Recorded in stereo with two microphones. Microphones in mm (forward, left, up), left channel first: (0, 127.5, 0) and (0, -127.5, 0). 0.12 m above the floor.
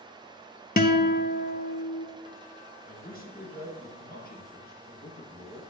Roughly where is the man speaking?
Left.